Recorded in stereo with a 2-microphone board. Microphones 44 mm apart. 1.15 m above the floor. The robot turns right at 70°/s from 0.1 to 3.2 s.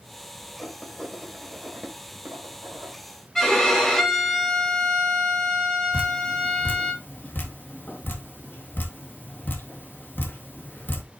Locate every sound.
0.6 s writing: 45° left (ahead or behind), 2.5 m; by 3.0 s 60° right (ahead or behind), 2.5 m
3.4 s a violin: 10° left (ahead or behind), 2.5 m
5.9 s dripping: 45° left (ahead or behind), 1.8 m